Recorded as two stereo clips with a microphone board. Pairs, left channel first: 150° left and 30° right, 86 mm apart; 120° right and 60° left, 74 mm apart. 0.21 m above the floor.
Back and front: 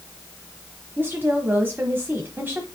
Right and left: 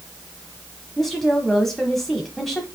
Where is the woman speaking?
35° right, 1.2 m.